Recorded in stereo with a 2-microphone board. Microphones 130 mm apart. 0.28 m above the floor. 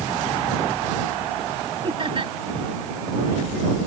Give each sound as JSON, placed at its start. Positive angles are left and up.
{"t": 1.8, "sound": "laughter", "side_deg": -45}